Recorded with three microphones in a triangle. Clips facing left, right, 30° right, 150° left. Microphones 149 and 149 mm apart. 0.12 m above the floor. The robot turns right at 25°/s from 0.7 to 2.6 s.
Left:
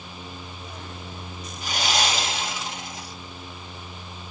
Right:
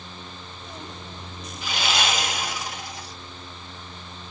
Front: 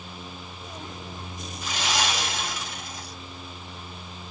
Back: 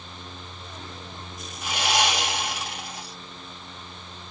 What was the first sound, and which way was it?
Sawing, 130° left.